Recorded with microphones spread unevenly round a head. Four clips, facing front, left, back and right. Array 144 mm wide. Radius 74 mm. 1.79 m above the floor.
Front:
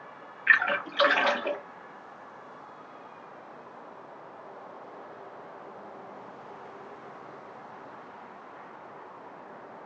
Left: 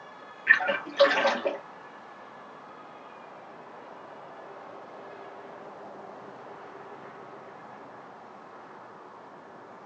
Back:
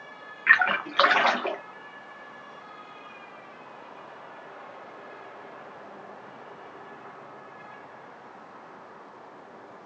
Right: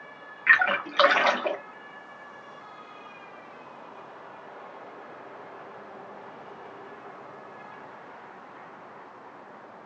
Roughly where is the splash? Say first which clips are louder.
Right 2 dB, back 3 dB; behind right.